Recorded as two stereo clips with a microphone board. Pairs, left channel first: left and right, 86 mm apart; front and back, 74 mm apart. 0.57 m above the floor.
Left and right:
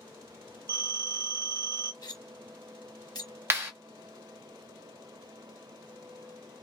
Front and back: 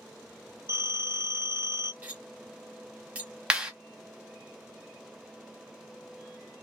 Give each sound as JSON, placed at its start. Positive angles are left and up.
{"t": 0.7, "sound": "a phone ringing", "azimuth_deg": -120, "distance_m": 1.1}
{"t": 2.0, "sound": "cutlery clinking", "azimuth_deg": 115, "distance_m": 0.7}
{"t": 3.5, "sound": "a clap", "azimuth_deg": -110, "distance_m": 0.9}